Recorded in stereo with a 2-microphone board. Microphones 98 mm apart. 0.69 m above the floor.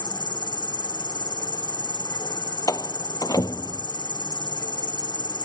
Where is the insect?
40° left (ahead or behind).